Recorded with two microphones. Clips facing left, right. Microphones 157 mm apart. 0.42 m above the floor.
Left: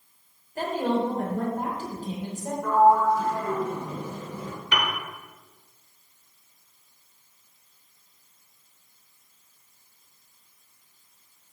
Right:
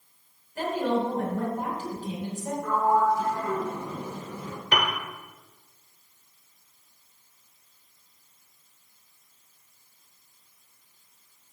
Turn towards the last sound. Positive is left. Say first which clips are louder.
# right 2 dB
turn(degrees=-45)  # may be behind; listen again after turning